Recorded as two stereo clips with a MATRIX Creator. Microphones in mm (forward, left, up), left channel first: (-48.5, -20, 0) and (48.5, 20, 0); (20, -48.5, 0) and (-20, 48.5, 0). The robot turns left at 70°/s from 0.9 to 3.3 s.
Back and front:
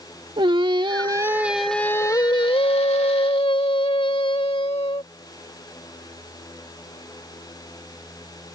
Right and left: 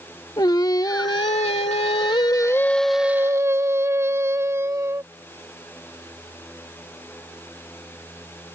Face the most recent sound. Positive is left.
turn(degrees=175)